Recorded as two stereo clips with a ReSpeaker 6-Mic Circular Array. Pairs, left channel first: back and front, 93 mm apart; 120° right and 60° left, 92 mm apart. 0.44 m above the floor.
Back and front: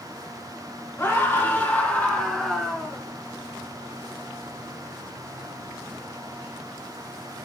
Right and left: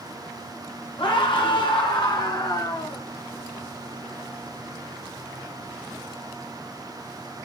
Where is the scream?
120° right, 5.5 m; by 3.0 s 90° right, 5 m.